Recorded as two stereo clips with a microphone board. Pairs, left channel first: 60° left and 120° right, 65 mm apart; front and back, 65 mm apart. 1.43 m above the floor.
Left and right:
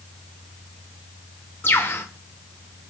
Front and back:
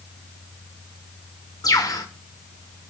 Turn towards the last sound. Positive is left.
turn(degrees=10)